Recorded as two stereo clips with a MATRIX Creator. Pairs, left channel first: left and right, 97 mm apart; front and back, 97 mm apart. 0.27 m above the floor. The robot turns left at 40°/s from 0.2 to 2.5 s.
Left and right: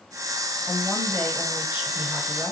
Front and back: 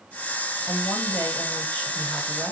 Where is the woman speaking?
10° right, 1.2 m; by 2.5 s 85° right, 1.2 m.